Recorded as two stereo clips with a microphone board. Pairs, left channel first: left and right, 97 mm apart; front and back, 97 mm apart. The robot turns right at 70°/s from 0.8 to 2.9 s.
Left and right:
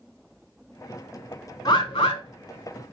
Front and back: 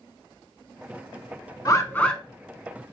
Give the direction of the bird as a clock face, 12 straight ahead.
10 o'clock.